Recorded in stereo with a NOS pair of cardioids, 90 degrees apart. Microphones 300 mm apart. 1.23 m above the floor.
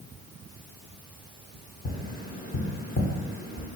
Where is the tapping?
30° left, 1.1 m.